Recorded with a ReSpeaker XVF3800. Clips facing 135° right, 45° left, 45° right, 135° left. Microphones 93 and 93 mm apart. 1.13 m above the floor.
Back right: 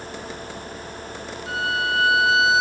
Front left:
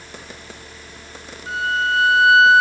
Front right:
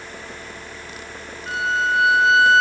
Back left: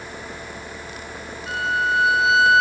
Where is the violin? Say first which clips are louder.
Front left 4 dB, front right 1 dB; straight ahead, 8.5 m.